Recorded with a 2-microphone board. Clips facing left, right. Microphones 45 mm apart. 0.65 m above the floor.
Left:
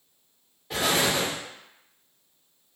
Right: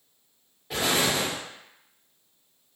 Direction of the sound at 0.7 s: 5° right (ahead or behind).